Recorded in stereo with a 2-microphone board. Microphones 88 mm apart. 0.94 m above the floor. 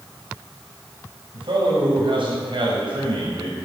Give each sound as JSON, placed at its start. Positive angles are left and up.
{"t": 1.3, "sound": "a man speaking", "side_deg": -75, "distance_m": 6.5}